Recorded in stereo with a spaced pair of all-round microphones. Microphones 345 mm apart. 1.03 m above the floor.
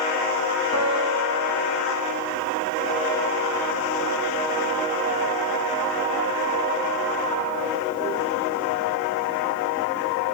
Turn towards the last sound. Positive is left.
turn(degrees=-50)  # may be behind; listen again after turning